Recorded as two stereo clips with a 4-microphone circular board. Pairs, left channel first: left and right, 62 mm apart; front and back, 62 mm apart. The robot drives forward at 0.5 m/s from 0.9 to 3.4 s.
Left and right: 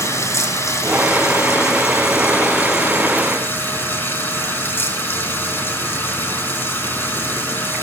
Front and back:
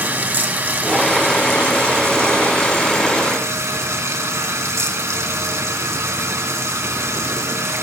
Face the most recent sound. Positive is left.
turn(degrees=145)